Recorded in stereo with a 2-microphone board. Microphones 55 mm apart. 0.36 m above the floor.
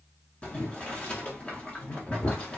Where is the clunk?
I don't hear a clunk.